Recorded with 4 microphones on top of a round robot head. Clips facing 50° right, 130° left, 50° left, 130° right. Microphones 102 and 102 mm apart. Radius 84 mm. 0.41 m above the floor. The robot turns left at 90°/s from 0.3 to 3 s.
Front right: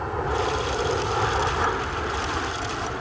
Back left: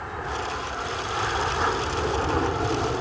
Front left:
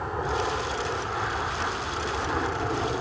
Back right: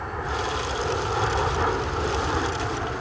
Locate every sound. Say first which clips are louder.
0.0 s an aircraft: front right 5 dB, front left 1 dB; 15° right; by 3.0 s 95° left